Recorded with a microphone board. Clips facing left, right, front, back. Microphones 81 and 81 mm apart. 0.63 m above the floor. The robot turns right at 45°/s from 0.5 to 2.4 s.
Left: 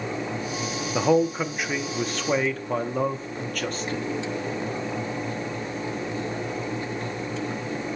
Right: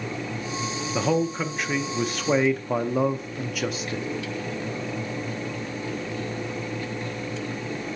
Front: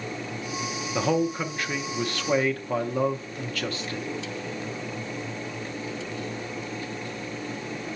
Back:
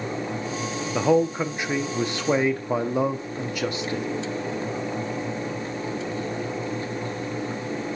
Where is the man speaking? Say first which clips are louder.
Left 3 dB, back 4 dB; 135° left, 0.6 m; by 4.0 s 160° right, 0.6 m.